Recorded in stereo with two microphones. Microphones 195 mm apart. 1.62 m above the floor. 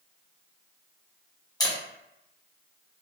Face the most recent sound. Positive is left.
turn(degrees=20)  # may be behind; listen again after turning